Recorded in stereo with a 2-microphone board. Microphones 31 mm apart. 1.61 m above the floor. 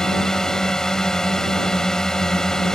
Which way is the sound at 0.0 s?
15° left (ahead or behind).